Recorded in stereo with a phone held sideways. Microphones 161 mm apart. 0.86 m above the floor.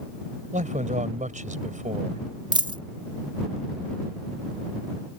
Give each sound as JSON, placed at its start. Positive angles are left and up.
{"t": 0.5, "sound": "a man speaking", "side_deg": -50}
{"t": 2.5, "sound": "a dropped coin", "side_deg": -30}